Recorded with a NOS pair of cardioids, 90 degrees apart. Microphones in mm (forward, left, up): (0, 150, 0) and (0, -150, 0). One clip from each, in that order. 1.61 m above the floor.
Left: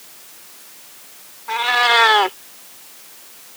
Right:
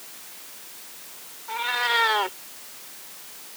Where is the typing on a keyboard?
No typing on a keyboard in this recording.